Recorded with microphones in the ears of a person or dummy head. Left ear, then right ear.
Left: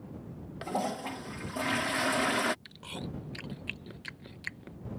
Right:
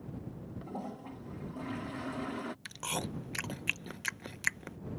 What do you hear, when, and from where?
0.6 s a toilet flushing: 40° left (ahead or behind)
2.6 s chewing: 35° right (ahead or behind)